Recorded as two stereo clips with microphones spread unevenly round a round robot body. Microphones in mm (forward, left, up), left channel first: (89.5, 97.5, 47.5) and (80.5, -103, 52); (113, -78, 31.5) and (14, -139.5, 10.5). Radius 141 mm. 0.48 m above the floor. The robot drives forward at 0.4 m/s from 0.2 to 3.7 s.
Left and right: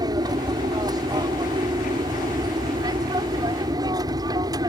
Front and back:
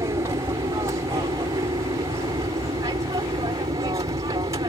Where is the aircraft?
150° right; by 4.7 s 155° right.